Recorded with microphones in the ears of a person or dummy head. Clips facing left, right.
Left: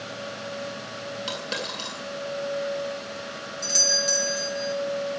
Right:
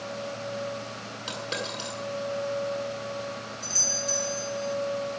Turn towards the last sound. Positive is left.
turn(degrees=75)  # may be behind; listen again after turning